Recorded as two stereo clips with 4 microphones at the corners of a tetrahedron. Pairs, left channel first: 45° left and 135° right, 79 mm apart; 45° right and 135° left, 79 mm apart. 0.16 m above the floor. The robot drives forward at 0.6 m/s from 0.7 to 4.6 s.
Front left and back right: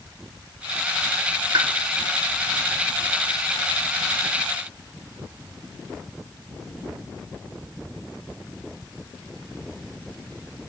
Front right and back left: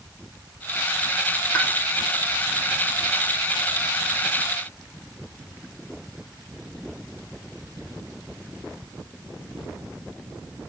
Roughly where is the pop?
Behind right.